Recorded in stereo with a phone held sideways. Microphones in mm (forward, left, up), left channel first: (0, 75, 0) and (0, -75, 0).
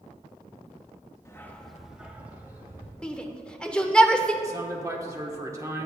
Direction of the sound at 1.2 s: 20° left (ahead or behind).